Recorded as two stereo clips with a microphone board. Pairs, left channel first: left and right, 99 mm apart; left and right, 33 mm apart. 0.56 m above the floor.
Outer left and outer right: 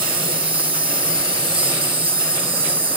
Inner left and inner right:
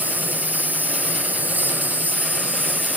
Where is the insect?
60° right (ahead or behind), 1.3 m.